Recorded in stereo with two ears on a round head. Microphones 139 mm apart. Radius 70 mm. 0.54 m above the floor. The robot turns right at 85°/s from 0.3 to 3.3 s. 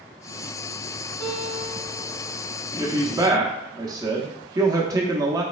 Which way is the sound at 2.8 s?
20° right (ahead or behind).